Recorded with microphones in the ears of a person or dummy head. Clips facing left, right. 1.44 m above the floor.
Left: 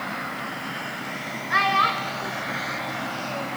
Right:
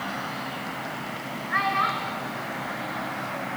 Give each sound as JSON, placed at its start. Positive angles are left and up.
{"t": 1.5, "sound": "a child speaking", "side_deg": 50, "distance_m": 3.5}